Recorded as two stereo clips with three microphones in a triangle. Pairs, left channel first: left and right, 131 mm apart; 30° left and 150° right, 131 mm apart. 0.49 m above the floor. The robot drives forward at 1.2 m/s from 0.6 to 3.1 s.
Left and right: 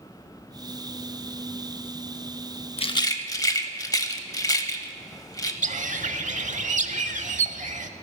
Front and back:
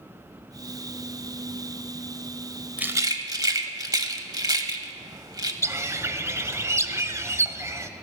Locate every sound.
2.8 s a rattle: 130° left, 0.5 m; by 5.5 s 150° left, 0.8 m
5.6 s a bird: 80° right, 0.7 m